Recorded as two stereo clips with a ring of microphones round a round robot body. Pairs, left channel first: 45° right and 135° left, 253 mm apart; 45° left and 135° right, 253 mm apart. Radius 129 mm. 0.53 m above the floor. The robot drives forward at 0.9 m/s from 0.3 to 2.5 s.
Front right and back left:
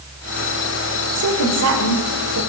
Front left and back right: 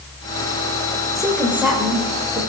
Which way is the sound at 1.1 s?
135° left.